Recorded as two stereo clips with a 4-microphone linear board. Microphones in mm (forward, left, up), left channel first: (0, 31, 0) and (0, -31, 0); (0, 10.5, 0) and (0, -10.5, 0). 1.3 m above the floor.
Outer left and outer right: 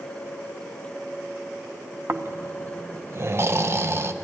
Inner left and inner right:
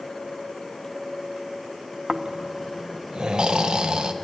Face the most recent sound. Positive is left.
turn(degrees=-45)  # may be behind; listen again after turning